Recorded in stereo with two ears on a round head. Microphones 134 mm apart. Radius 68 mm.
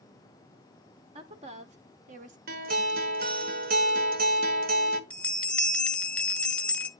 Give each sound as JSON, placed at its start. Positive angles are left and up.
{"t": 1.1, "sound": "a woman speaking", "side_deg": -40, "distance_m": 1.8}
{"t": 2.5, "sound": "a guitar", "side_deg": -60, "distance_m": 1.6}
{"t": 5.1, "sound": "a bell", "side_deg": 10, "distance_m": 1.0}